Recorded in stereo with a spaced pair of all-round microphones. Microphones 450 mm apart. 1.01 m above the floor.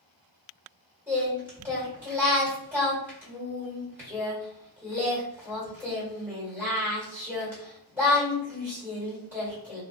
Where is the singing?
5° right (ahead or behind), 1.6 m.